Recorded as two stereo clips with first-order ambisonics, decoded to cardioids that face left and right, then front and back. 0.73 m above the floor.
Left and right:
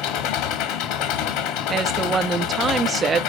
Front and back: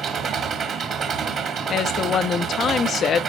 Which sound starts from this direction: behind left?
An engine running, at 0.0 s.